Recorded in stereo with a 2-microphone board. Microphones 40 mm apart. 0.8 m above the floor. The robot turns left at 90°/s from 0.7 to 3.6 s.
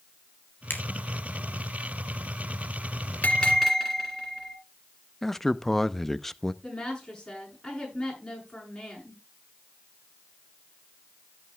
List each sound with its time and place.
0.7 s a finger snap: 55° left (ahead or behind), 4 m; by 0.8 s 65° left (ahead or behind), 4 m
3.2 s a bell: 35° left, 4 m; by 4.6 s 5° left, 4 m
5.2 s a man speaking: 5° left (ahead or behind), 0.6 m
6.6 s a woman speaking: 15° left (ahead or behind), 8.5 m